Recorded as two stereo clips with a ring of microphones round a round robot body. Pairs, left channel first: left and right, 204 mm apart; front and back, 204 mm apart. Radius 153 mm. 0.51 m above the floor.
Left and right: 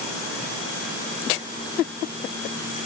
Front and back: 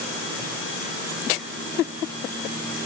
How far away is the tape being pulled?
No tape being pulled in this recording.